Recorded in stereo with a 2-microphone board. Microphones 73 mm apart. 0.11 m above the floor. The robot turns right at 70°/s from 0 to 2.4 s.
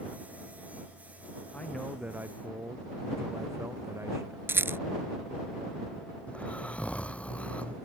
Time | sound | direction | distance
1.5 | a man speaking | 160° left | ?
4.5 | a rattle | 35° right (ahead or behind) | ?
6.3 | snoring | 15° left (ahead or behind) | ?